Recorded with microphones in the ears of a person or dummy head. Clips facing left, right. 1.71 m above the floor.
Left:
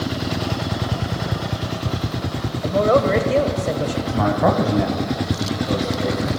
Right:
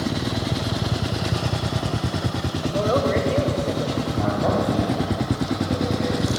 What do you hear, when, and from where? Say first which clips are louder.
2.6 s a man speaking: left 5 dB; 60° left (ahead or behind), 1.1 m
4.1 s a man speaking: left 5 dB; 80° left, 1.1 m